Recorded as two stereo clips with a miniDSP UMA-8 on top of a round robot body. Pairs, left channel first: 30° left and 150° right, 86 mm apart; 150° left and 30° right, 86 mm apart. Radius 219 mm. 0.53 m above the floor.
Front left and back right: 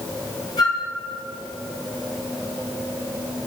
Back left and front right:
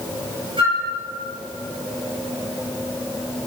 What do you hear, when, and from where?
0.6 s a flute: 10° right, 7 m